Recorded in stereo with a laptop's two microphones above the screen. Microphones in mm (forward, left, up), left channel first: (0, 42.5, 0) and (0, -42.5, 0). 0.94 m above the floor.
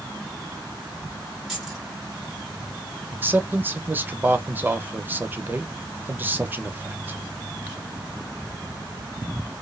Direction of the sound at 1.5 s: Centre (ahead or behind).